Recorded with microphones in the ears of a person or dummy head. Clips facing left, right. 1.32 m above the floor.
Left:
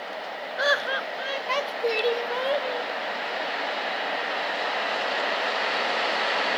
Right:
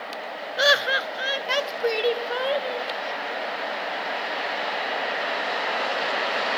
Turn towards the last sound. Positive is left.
turn(degrees=-5)  # may be behind; listen again after turning